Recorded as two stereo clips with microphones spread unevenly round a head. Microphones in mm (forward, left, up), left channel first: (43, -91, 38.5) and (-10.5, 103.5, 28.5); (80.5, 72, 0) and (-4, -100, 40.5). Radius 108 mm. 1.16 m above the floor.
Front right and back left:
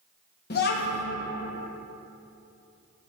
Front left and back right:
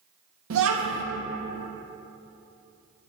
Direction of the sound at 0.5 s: 120° right.